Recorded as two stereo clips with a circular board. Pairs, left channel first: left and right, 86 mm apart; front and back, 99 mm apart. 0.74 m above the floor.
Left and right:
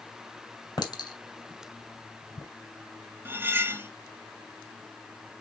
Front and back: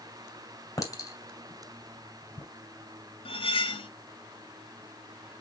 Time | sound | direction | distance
0.8 | a clink | 55° left | 2 m
3.2 | cutlery clinking | 25° right | 0.6 m